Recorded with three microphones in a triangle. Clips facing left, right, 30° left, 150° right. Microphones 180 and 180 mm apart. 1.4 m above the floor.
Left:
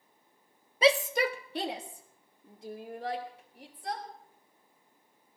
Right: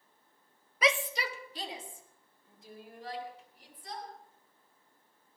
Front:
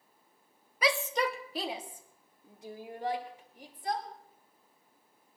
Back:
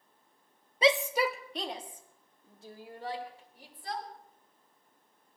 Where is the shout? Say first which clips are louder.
Left 6 dB, back 4 dB; 150° left, 0.6 m; by 4.0 s 100° left, 4 m.